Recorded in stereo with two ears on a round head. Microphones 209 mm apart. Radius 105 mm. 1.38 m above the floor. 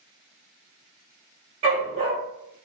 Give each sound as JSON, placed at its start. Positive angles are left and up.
{"t": 1.6, "sound": "a dog barking", "side_deg": -30, "distance_m": 2.0}